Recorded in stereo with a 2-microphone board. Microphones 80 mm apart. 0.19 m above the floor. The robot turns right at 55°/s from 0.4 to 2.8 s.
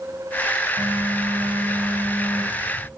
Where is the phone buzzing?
150° right, 5.5 m; by 2.9 s 40° right, 5.5 m.